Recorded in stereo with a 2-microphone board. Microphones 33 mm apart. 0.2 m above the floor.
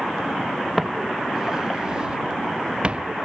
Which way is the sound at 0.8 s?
Centre (ahead or behind).